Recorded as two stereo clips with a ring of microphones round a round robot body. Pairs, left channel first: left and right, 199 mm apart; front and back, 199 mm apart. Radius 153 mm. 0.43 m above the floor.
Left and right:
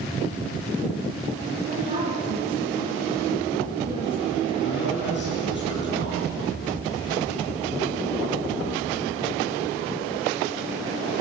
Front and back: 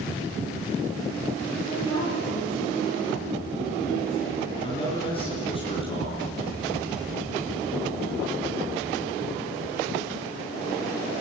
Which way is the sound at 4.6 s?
60° left.